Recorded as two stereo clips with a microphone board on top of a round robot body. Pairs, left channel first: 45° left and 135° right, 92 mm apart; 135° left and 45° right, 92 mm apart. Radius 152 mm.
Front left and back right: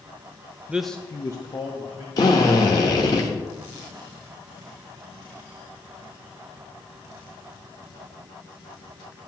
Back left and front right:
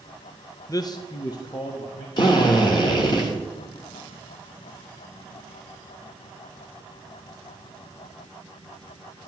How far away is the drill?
About 1.2 m.